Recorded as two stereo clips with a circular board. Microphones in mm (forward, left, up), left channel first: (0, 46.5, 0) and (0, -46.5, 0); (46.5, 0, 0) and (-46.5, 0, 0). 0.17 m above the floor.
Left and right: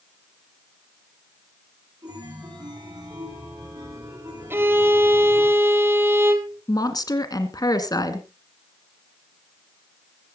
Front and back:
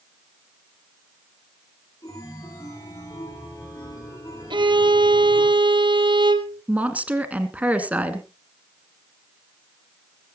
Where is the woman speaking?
110° left, 2 m.